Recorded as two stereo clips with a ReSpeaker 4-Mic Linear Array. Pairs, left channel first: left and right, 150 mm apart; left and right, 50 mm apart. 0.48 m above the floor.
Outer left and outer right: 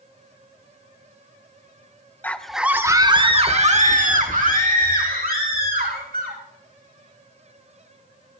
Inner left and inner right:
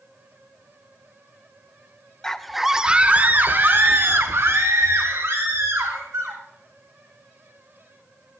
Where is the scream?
10° left (ahead or behind), 1.2 m; by 6.4 s 80° right, 4 m.